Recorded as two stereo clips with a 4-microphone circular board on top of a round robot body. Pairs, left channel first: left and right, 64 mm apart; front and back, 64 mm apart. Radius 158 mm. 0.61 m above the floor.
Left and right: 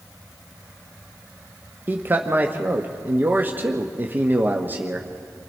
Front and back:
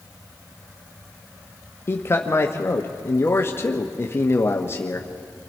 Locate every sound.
1.9 s a man speaking: 40° right, 1.2 m